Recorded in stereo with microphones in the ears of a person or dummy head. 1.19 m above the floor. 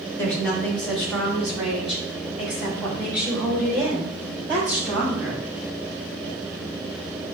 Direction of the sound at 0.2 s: 10° left (ahead or behind).